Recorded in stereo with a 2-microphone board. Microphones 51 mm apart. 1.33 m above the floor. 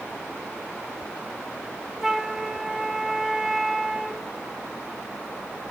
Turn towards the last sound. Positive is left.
turn(degrees=-10)  # may be behind; listen again after turning